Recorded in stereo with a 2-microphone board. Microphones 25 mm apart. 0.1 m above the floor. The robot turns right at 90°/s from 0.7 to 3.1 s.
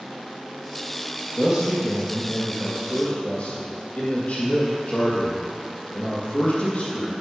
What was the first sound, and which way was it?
A man speaking, 30° right.